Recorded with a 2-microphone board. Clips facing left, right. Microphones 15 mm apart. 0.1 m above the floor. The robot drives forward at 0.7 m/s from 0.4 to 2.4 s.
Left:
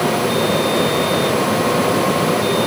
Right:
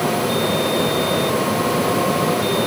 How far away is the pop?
No pop in this recording.